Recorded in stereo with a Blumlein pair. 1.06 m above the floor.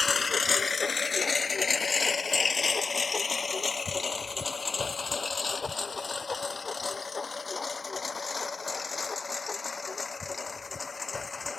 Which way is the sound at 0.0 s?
15° left.